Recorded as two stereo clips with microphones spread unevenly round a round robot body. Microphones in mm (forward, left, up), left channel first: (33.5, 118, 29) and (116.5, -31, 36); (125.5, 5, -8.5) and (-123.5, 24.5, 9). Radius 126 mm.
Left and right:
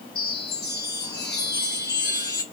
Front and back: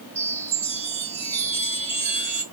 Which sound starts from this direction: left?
A chime, at 0.1 s.